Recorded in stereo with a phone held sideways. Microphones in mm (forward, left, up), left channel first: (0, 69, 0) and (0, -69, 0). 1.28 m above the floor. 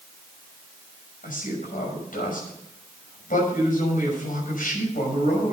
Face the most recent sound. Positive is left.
turn(degrees=90)